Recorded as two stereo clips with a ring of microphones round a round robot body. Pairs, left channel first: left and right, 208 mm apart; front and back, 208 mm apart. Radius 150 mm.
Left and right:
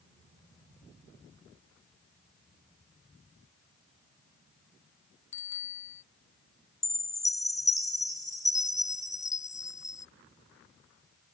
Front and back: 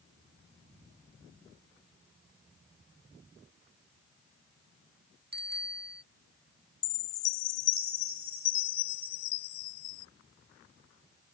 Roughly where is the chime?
Ahead.